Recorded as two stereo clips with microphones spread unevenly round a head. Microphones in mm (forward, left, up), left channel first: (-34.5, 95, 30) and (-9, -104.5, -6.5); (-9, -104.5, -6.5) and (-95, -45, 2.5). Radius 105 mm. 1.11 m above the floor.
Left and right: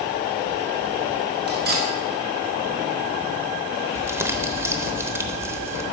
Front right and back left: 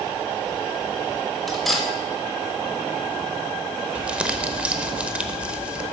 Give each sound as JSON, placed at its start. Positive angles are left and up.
{"t": 1.5, "sound": "cutlery clinking", "azimuth_deg": -125, "distance_m": 2.5}
{"t": 4.0, "sound": "crumpling", "azimuth_deg": -165, "distance_m": 0.8}